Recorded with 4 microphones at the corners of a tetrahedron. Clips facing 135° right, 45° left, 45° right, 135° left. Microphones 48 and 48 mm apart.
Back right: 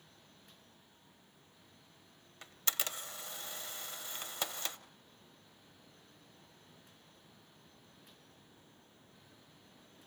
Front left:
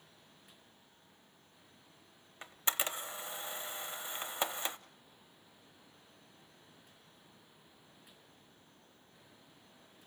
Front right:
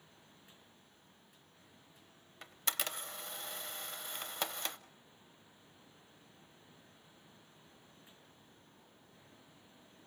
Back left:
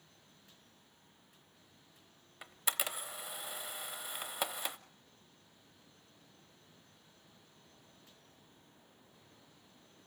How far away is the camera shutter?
About 0.7 m.